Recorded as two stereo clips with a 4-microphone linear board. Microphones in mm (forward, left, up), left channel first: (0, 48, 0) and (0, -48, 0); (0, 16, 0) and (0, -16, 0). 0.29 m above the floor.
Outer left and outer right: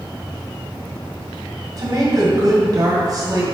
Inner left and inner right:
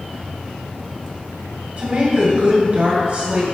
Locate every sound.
1.8 s a woman speaking: 45° right (ahead or behind), 2.0 m